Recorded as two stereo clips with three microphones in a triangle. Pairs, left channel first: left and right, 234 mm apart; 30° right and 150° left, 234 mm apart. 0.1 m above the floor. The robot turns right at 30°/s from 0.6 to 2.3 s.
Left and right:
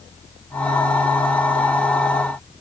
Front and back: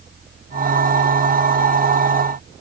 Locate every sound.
Only background noise.